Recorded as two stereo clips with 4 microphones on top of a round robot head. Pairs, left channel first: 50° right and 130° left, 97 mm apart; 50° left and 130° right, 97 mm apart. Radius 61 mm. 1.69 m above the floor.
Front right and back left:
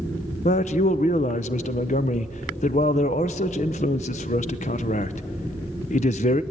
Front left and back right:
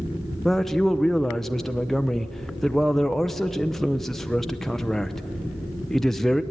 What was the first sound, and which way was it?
A man speaking, 40° right.